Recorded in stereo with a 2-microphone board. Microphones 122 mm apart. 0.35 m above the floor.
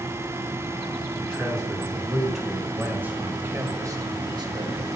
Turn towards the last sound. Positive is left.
turn(degrees=-40)  # may be behind; listen again after turning